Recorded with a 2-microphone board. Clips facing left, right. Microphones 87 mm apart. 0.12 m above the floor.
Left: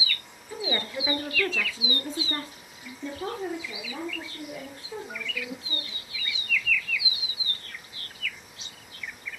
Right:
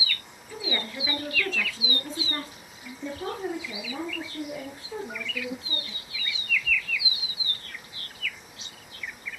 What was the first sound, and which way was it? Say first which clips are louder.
A woman speaking: left 2 dB; 25° left (ahead or behind).